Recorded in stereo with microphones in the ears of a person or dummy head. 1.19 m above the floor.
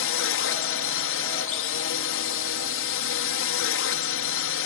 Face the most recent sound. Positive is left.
turn(degrees=65)  # may be behind; listen again after turning